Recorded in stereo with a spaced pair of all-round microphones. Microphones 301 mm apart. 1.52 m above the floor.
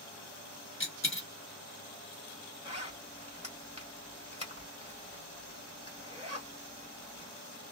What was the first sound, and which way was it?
A dropped coin, 40° left (ahead or behind).